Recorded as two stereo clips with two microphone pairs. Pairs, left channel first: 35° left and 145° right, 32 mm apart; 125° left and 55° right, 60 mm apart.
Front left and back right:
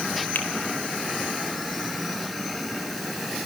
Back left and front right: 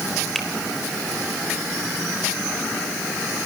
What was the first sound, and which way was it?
A finger snap, 35° left.